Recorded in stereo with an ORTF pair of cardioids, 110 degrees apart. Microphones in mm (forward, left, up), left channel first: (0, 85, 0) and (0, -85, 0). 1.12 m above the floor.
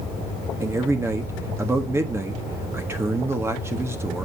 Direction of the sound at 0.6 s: 15° right.